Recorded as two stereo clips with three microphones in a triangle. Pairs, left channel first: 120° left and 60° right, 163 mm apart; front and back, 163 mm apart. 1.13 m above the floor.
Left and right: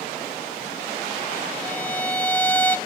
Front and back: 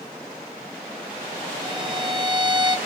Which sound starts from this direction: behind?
A violin, at 1.6 s.